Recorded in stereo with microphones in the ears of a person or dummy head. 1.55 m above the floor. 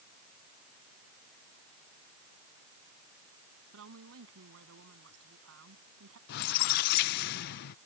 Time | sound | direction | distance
3.7 | a woman speaking | 80° right | ?
6.3 | a squeak | 50° left (ahead or behind) | ?